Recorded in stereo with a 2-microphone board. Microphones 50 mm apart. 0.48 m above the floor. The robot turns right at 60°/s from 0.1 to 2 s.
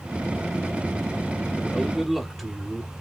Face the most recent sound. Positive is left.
turn(degrees=0)  # may be behind; listen again after turning